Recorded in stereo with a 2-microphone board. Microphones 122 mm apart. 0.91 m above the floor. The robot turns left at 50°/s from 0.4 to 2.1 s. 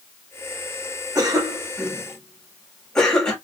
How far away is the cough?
About 1.3 m.